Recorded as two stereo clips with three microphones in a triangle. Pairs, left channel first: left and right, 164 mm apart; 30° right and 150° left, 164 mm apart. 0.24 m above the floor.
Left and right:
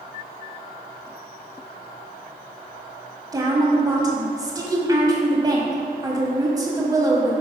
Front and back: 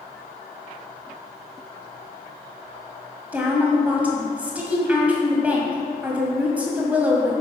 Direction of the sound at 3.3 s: 135° right.